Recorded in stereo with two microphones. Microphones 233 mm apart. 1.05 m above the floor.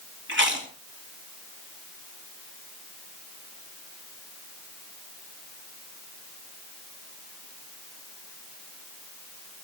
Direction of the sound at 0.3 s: 55° right (ahead or behind).